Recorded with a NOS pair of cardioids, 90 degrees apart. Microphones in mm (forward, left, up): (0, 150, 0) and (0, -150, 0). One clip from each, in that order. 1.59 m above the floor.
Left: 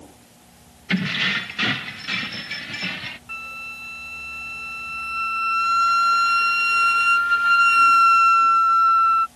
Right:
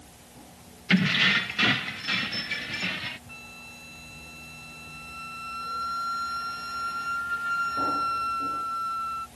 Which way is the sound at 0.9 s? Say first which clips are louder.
Even; 5° right.